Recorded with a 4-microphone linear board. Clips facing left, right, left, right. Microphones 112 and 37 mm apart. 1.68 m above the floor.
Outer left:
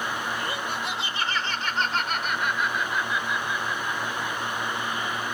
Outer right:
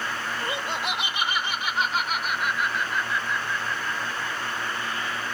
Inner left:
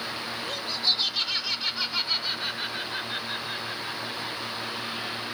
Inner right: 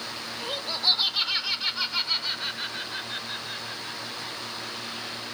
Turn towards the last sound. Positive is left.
turn(degrees=20)  # may be behind; listen again after turning